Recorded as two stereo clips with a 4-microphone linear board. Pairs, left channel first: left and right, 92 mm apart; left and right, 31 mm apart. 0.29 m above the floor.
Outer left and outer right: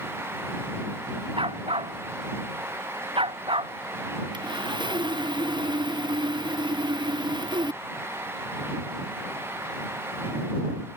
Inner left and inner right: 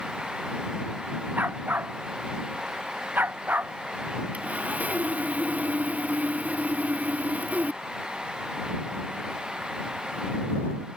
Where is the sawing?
55° right (ahead or behind).